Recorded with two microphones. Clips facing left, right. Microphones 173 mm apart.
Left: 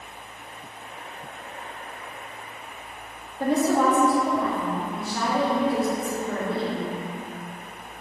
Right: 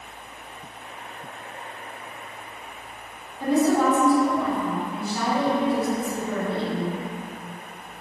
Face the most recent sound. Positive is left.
turn(degrees=80)